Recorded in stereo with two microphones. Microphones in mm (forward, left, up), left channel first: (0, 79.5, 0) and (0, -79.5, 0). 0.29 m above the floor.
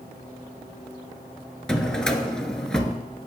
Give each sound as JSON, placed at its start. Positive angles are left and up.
{"t": 1.7, "sound": "a drawer", "side_deg": 5, "distance_m": 1.0}